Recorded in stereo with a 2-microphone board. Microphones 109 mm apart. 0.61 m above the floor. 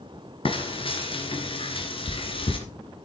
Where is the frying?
50° left (ahead or behind), 2 m.